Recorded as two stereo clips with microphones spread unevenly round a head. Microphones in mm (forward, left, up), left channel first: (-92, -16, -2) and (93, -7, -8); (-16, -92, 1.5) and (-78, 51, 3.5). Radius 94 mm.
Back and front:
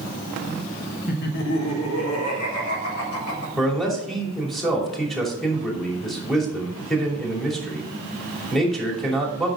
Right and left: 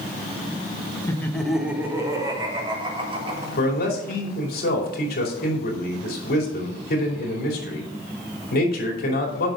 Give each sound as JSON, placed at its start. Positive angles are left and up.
{"t": 1.1, "sound": "laughter", "azimuth_deg": -135, "distance_m": 1.6}
{"t": 3.6, "sound": "a man speaking", "azimuth_deg": -90, "distance_m": 2.5}